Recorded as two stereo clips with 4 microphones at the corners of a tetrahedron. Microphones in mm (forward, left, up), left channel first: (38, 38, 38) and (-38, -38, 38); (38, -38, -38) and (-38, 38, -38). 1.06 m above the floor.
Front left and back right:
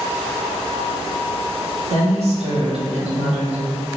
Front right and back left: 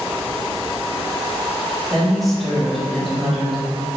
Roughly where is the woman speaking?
Behind right.